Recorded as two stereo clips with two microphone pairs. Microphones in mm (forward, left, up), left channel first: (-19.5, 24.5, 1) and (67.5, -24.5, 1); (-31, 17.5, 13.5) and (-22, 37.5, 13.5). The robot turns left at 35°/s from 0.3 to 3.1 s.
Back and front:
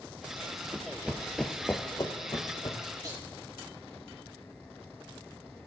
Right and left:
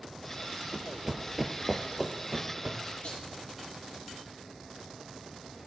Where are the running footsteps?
30° left, 1.5 m; by 2.8 s 115° left, 2 m.